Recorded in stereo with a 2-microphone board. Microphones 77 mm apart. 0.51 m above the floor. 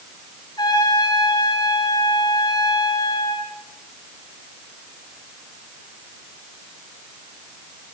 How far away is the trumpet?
About 8 m.